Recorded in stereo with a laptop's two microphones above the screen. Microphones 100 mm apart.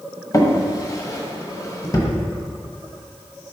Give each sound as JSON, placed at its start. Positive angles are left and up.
{"t": 0.3, "sound": "a drawer", "side_deg": 35, "distance_m": 1.2}